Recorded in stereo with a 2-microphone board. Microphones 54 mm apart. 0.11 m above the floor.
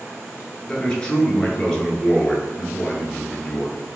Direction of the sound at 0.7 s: 15° left (ahead or behind).